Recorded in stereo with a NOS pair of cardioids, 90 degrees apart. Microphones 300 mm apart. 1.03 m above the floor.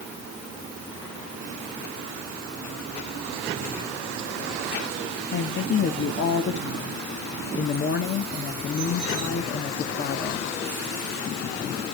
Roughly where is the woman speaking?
Ahead left.